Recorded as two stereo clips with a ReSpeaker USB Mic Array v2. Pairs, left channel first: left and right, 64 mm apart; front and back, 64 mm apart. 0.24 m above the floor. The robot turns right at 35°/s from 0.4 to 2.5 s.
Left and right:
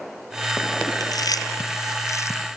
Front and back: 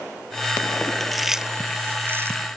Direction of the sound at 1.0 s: 85° left.